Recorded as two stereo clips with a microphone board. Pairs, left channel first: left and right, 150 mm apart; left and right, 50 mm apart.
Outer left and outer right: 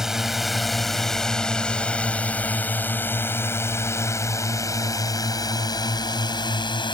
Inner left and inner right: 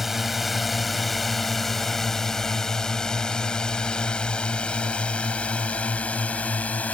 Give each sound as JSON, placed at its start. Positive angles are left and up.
{"t": 0.0, "sound": "a drone", "side_deg": -5}